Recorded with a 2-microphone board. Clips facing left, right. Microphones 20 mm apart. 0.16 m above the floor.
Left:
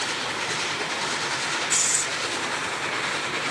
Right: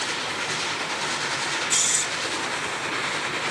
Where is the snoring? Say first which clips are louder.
Right 2 dB; 30° right (ahead or behind), 1.7 m.